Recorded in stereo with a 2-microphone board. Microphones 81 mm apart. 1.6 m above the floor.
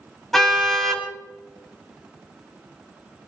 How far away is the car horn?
About 6 m.